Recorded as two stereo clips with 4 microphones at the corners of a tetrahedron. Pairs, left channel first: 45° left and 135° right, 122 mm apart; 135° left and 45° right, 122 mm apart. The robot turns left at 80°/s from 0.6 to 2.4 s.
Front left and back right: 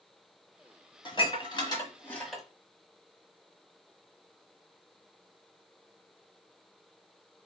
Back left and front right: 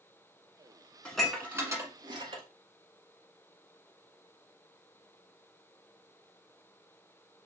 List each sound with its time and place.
1.1 s dishes clattering: 60° left, 1.2 m; by 2.4 s 50° right, 1.2 m